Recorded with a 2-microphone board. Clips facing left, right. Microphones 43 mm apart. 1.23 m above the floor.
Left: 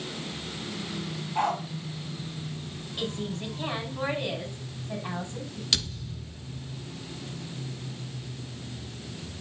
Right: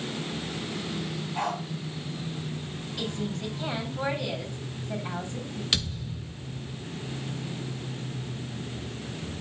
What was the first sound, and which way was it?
A dog barking, 20° left (ahead or behind).